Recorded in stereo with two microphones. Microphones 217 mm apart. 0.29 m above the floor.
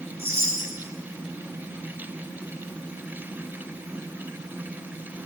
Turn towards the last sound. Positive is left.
turn(degrees=-25)  # may be behind; listen again after turning